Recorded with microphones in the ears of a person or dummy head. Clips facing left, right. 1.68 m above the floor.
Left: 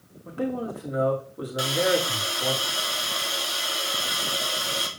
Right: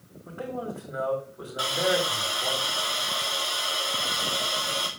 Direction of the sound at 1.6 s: 25° left (ahead or behind).